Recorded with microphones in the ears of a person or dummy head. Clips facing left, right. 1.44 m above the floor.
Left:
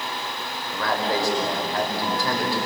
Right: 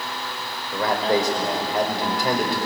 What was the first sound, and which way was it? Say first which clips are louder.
A man speaking: right 4 dB; 15° right (ahead or behind).